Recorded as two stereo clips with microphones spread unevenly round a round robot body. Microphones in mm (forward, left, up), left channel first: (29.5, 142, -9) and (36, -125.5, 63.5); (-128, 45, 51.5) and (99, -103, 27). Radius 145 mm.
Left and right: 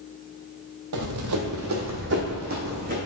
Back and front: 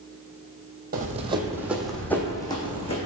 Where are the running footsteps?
95° right, 1.1 m; by 3.0 s 145° right, 1.9 m.